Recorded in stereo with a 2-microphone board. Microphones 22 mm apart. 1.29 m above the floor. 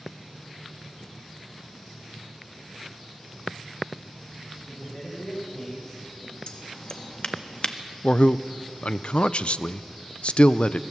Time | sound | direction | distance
4.7 | a man speaking | 40° left (ahead or behind) | 6.5 m
6.5 | scissors | 50° left (ahead or behind) | 1.5 m
8.0 | a man speaking | 65° left (ahead or behind) | 0.6 m